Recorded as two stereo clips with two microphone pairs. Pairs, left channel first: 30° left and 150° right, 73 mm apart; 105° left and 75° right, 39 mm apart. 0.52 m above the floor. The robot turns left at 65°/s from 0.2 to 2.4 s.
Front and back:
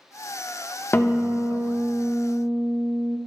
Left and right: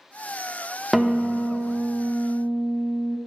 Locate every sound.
0.9 s a guitar: 10° left, 0.5 m; by 3.2 s 90° right, 0.5 m